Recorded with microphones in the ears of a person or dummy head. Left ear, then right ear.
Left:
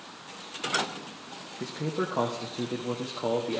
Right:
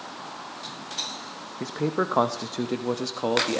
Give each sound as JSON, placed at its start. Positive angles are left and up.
{"t": 1.6, "sound": "a man speaking", "side_deg": -40, "distance_m": 0.8}